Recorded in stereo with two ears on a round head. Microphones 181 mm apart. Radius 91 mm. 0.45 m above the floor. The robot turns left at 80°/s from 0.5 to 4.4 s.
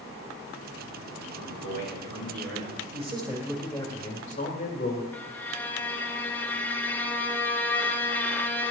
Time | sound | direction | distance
1.4 | a man speaking | 85° left | 3.5 m
2.9 | a man speaking | 130° right | 1.8 m
5.1 | a violin | 10° left (ahead or behind) | 0.7 m